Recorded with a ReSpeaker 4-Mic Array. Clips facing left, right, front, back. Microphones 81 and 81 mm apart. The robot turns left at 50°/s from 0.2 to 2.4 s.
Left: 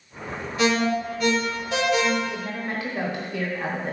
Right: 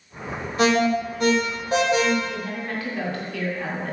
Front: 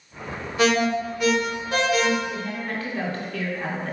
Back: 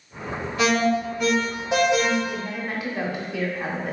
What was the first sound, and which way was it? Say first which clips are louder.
An alarm: right 3 dB, even; 55° right.